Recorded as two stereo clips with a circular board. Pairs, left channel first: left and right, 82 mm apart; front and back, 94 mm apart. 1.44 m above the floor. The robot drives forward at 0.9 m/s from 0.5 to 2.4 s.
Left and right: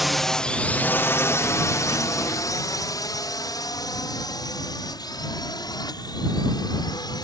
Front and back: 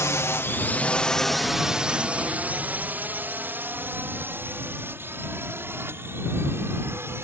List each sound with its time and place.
0.0 s a drone: 5° right; by 7.2 s 120° left